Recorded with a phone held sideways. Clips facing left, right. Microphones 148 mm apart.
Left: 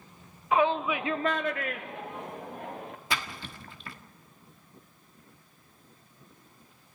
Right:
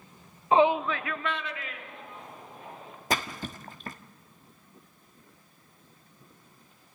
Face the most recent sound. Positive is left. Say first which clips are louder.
# right 6 dB
turn(degrees=-40)  # may be behind; listen again after turning